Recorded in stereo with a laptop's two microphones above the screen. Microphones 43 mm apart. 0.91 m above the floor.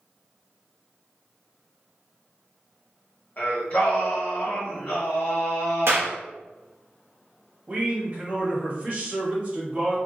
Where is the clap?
70° right (ahead or behind), 0.6 m.